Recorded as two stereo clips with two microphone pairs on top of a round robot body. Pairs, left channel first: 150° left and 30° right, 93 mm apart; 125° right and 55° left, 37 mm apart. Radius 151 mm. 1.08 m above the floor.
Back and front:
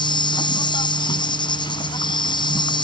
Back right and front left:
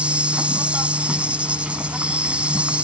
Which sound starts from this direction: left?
An insect, at 0.0 s.